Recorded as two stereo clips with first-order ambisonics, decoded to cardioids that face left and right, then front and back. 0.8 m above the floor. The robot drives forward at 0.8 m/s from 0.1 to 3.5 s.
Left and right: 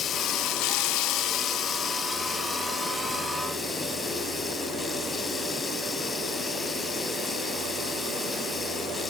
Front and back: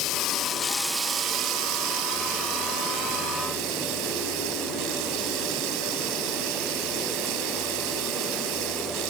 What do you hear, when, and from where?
0.0 s running water: 35° left, 0.7 m; by 9.1 s 170° left, 2 m